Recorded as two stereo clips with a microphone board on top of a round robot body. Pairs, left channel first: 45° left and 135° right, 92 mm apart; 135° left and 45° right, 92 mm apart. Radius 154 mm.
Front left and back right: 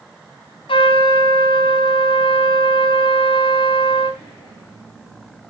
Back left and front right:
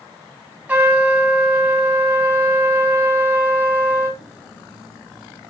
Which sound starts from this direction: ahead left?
A trumpet, at 0.7 s.